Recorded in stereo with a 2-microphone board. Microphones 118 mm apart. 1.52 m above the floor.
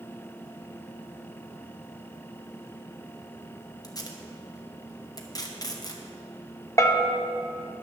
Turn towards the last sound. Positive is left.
turn(degrees=25)  # may be behind; listen again after turning